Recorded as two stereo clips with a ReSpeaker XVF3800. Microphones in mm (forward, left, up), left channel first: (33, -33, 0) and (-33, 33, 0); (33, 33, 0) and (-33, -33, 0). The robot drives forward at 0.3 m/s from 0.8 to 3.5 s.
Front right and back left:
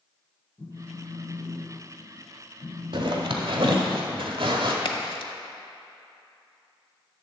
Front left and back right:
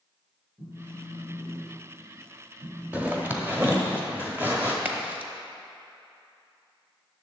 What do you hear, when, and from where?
0.6 s a phone buzzing: 80° right, 3 m; by 3.8 s 95° right, 3 m
2.9 s a zipper: 155° left, 1.1 m
4.8 s a crack: 65° right, 0.9 m